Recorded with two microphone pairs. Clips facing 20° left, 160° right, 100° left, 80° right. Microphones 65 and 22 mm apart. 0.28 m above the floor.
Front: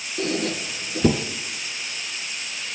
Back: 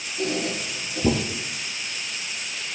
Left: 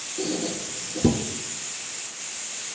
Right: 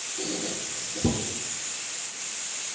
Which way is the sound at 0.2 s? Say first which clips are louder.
Front 1 dB, left 5 dB; 25° left.